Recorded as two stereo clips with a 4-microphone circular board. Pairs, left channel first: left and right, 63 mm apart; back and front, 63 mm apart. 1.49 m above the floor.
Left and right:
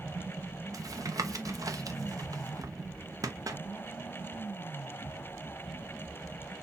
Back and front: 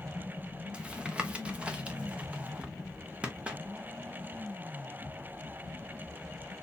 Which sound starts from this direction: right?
Tapping, at 0.7 s.